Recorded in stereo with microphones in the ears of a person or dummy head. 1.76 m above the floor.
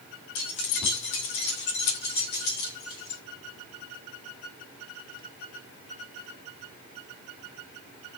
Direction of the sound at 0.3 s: 65° left (ahead or behind).